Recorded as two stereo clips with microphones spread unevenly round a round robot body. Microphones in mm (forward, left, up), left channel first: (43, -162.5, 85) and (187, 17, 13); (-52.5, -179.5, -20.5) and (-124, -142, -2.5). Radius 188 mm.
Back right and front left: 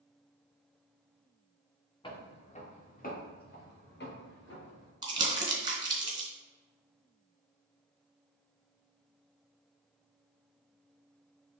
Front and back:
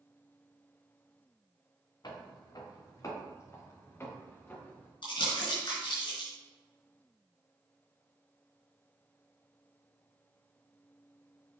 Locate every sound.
2.0 s footsteps: 60° right, 2.5 m; by 4.9 s 95° right, 4 m
5.0 s crumpling: 15° right, 3 m